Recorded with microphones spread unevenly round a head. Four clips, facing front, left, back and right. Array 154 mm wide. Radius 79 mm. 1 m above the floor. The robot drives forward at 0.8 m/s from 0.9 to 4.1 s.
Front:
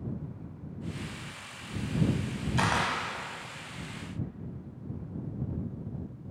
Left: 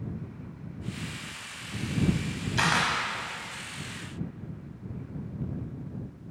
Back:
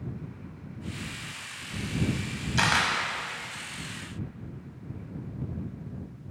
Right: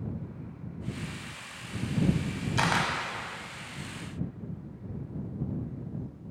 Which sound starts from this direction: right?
A camera shutter, at 2.6 s.